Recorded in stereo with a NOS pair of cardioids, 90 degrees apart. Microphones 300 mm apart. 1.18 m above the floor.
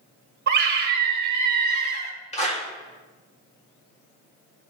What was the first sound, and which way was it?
A scream, 35° right.